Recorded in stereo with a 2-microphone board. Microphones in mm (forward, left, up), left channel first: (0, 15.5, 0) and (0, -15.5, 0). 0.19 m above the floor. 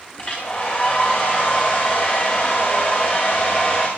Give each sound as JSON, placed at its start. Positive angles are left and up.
{"t": 0.2, "sound": "a hair dryer", "side_deg": 35, "distance_m": 7.5}